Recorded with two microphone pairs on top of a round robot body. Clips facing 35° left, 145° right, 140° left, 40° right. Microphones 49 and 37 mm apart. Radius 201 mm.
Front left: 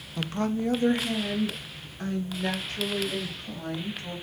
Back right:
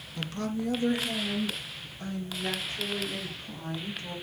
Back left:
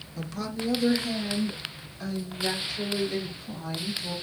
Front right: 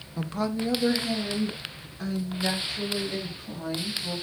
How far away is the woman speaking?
About 0.8 m.